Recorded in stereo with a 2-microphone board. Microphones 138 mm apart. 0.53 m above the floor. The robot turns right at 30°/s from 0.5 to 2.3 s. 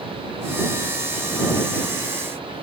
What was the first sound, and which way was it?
Only background noise.